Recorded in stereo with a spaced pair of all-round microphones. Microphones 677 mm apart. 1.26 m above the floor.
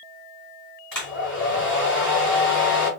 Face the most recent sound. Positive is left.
turn(degrees=65)  # may be behind; listen again after turning